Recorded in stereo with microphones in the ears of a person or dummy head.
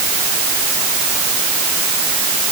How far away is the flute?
No flute in this recording.